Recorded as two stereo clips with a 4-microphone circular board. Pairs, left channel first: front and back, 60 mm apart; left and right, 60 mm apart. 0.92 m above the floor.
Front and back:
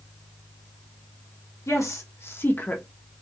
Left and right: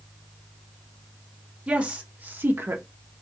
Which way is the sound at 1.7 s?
20° right.